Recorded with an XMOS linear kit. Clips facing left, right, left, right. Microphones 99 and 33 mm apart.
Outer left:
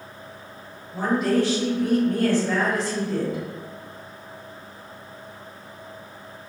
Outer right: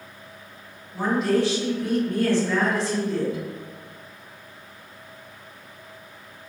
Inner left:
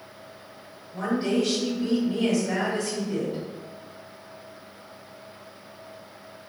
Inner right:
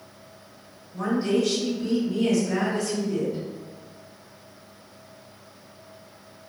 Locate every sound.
0.9 s a woman speaking: 50° left (ahead or behind), 1.8 m